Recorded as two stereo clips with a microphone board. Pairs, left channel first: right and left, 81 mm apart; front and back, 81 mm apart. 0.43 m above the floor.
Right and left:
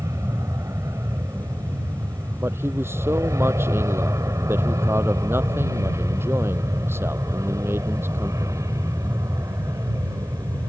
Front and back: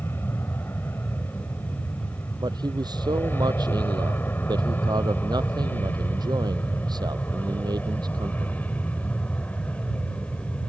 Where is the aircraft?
50° left; by 10.7 s 65° left.